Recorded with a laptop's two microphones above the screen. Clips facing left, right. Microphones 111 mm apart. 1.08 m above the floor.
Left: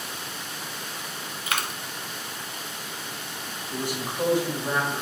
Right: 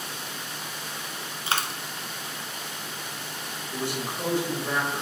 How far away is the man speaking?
About 1.5 m.